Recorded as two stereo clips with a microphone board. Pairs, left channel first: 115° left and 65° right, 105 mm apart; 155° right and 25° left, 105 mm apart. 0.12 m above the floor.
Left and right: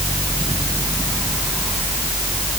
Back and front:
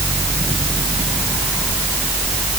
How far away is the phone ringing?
I don't hear a phone ringing.